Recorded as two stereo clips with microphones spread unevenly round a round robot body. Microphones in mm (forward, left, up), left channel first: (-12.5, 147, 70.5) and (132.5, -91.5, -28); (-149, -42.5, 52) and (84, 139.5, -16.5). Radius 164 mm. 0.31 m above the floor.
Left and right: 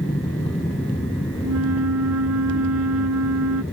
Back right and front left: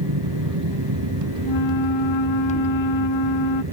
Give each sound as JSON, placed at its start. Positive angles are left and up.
{"t": 0.0, "sound": "an aircraft", "azimuth_deg": 40}
{"t": 1.4, "sound": "a flute", "azimuth_deg": -105}